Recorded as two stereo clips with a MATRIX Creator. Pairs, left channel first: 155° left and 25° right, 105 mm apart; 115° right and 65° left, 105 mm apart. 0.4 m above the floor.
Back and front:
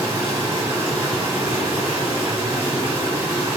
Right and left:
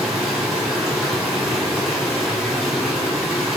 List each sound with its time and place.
0.0 s running water: 15° right, 1.2 m